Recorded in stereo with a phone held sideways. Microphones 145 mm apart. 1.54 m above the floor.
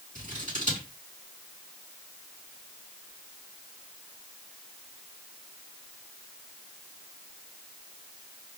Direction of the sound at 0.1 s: 65° right (ahead or behind).